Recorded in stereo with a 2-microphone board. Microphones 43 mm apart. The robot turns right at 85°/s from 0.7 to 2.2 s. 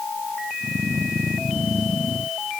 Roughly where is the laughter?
I don't hear laughter.